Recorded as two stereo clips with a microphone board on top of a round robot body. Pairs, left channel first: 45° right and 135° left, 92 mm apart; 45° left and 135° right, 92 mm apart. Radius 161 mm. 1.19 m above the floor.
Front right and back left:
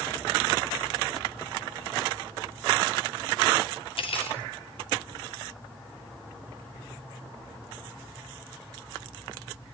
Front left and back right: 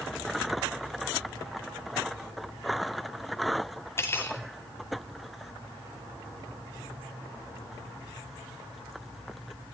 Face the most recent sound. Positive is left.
turn(degrees=-20)